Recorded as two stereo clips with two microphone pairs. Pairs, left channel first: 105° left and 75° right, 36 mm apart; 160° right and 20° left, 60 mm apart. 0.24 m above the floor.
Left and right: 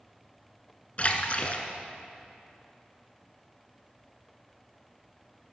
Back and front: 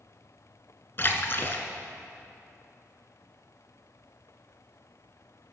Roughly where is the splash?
Behind left.